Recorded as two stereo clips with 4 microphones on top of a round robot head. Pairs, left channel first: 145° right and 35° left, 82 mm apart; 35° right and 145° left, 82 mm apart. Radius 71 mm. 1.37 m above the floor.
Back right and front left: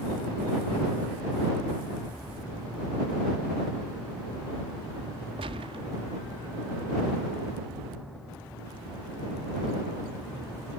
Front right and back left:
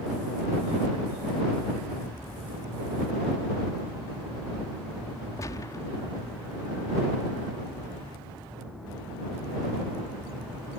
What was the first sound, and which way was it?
A gunshot, 15° left.